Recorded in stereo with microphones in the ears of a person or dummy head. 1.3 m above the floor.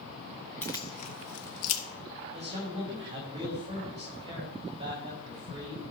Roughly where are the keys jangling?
Centre.